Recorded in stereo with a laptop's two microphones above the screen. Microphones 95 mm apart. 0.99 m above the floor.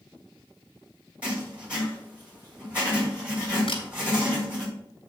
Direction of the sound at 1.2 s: 15° right (ahead or behind).